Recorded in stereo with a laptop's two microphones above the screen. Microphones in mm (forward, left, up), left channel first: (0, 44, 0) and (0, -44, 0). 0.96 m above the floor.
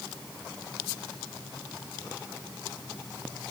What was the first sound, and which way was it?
Only background noise.